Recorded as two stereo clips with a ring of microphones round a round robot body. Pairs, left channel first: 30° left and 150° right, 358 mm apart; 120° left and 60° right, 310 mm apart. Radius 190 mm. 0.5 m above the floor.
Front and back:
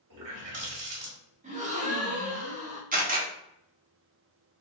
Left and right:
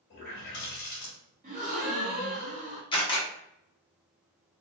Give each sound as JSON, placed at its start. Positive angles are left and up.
{"t": 0.1, "sound": "a running tap", "azimuth_deg": 180, "distance_m": 1.4}
{"t": 1.4, "sound": "a gasp", "azimuth_deg": -100, "distance_m": 1.2}
{"t": 2.9, "sound": "a camera shutter", "azimuth_deg": 175, "distance_m": 1.1}